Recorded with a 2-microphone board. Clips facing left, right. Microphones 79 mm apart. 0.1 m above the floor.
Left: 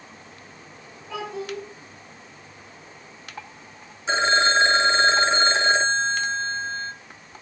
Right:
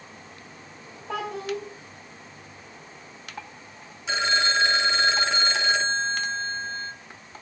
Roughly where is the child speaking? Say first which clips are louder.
Right 1 dB; right.